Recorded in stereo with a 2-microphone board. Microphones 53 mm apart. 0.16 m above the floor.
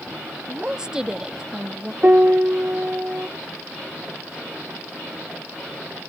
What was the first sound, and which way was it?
A woman speaking, 10° right (ahead or behind).